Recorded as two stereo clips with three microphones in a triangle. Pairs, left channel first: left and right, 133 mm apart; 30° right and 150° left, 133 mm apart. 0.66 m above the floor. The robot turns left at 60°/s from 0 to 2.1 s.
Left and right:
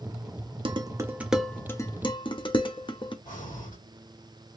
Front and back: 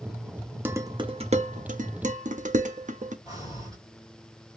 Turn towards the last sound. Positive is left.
turn(degrees=85)